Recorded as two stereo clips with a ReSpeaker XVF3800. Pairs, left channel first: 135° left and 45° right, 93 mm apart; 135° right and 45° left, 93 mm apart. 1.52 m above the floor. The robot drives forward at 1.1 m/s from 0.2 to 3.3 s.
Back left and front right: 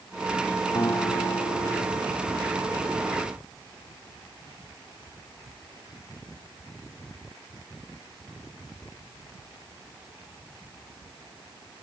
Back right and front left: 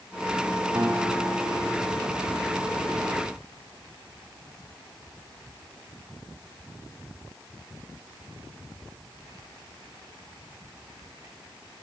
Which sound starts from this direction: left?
A guitar, at 0.8 s.